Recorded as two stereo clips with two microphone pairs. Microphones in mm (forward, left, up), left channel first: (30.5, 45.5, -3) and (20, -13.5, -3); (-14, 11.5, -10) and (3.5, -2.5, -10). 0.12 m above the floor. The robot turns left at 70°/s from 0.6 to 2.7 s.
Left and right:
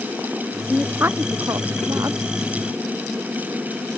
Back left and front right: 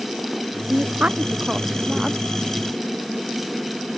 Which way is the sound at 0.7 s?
20° right.